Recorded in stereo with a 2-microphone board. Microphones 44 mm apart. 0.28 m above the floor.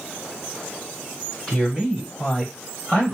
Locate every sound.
1.5 s a man speaking: 15° left (ahead or behind), 1.6 m